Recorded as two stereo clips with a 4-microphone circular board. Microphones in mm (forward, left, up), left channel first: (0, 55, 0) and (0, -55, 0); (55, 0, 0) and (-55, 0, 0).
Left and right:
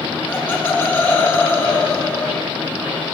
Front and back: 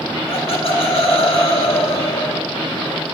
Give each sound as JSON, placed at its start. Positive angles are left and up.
{"t": 0.3, "sound": "laughter", "azimuth_deg": 20, "distance_m": 1.5}